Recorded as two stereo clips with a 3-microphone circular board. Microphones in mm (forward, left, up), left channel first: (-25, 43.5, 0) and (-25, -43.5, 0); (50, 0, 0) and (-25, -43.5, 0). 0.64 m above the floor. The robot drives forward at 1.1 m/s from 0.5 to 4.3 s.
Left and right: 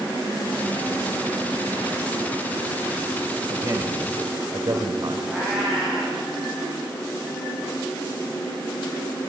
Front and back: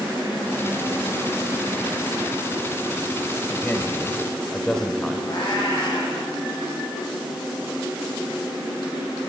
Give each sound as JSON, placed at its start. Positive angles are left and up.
{"t": 3.5, "sound": "a man speaking", "azimuth_deg": -35, "distance_m": 2.5}
{"t": 5.3, "sound": "a cat meowing", "azimuth_deg": -10, "distance_m": 8.5}